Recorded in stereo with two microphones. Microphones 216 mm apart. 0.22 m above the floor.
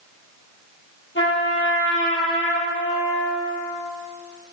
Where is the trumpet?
65° left (ahead or behind), 4 m.